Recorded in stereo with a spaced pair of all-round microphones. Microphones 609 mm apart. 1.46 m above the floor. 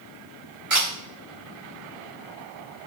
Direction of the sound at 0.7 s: 45° right (ahead or behind).